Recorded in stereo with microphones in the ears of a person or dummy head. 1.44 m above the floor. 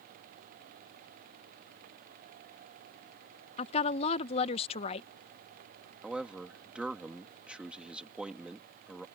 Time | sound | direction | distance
3.6 | a woman speaking | 30° left (ahead or behind) | ?
6.0 | a man speaking | 5° right (ahead or behind) | ?